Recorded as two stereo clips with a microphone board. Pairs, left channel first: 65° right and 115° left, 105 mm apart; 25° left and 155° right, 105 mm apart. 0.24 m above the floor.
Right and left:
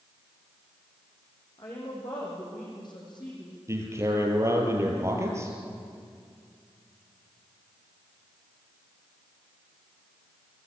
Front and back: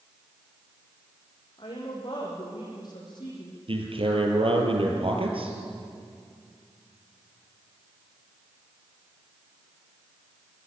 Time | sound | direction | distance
1.6 | a woman speaking | 25° right | 10 m
3.7 | a man speaking | 175° left | 5.5 m